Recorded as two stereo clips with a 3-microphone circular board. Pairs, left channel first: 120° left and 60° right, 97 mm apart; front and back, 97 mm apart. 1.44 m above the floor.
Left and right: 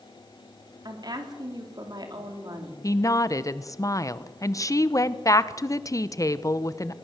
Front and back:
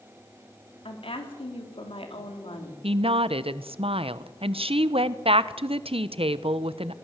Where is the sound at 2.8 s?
175° left, 0.9 m.